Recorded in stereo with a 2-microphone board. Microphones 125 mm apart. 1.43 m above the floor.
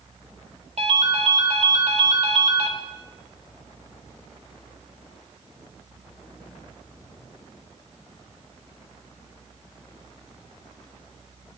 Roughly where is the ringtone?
Right.